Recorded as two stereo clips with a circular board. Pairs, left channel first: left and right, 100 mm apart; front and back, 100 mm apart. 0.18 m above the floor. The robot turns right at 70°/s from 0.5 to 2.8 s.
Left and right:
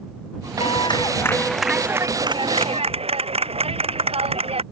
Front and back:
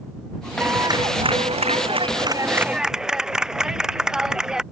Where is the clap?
110° left; by 4.6 s 95° right.